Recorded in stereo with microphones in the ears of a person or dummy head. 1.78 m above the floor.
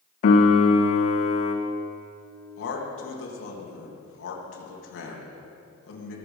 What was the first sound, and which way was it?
A piano, 50° left (ahead or behind).